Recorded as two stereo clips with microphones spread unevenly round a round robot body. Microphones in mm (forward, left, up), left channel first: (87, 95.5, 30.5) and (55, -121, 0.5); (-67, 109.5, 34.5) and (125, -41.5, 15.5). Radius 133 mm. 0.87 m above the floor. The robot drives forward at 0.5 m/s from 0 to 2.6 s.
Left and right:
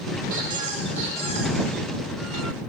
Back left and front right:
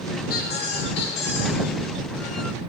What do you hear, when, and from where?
0.3 s a squeak: 160° right, 0.8 m; by 1.6 s 170° right, 1.4 m